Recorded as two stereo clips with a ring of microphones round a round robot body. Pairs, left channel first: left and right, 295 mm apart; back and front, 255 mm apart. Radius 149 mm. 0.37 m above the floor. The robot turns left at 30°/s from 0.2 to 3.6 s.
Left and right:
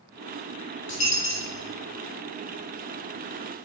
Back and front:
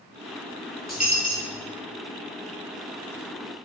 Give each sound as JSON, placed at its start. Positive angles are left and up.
{"t": 0.9, "sound": "a dropped coin", "azimuth_deg": 90, "distance_m": 1.8}